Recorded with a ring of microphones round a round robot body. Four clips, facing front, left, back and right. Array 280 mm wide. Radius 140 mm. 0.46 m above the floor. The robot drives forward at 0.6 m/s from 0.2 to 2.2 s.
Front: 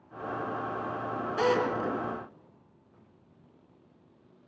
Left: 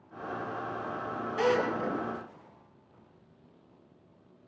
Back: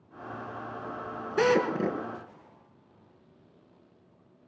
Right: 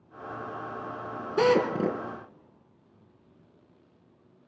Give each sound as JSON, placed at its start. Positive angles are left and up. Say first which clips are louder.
{"t": 1.4, "sound": "a drill", "louder": "right 5 dB, back 3 dB", "azimuth_deg": -115, "distance_m": 3.0}